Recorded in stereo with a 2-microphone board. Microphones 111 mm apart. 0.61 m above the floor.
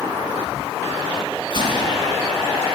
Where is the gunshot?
40° left (ahead or behind), 4.5 m.